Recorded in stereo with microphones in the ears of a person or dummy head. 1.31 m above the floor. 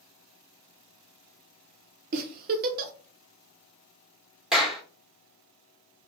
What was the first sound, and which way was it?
A giggle, 45° right (ahead or behind).